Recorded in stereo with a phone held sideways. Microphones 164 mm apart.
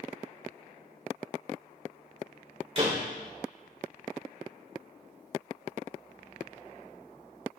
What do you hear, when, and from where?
2.8 s a door slam: 40° right (ahead or behind), 2.5 m